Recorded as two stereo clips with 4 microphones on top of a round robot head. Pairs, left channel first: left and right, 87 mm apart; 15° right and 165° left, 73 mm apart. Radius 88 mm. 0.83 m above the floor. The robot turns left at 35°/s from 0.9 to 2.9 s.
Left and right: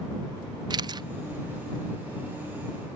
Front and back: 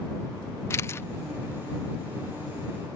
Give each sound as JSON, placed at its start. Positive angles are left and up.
{"t": 0.7, "sound": "a camera shutter", "azimuth_deg": -65}